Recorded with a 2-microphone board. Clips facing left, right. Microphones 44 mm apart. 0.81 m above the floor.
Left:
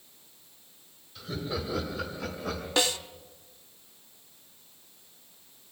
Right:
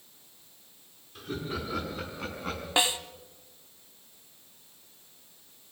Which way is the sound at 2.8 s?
20° right (ahead or behind).